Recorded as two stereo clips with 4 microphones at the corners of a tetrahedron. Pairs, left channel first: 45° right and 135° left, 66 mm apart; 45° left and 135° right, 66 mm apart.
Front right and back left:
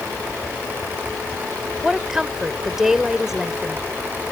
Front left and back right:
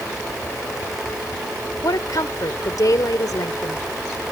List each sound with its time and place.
1.8 s a woman speaking: 50° left